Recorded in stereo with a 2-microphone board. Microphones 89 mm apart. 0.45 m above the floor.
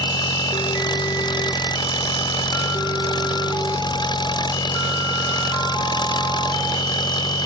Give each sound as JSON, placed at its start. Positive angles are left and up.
{"t": 0.0, "sound": "an engine running", "side_deg": 55}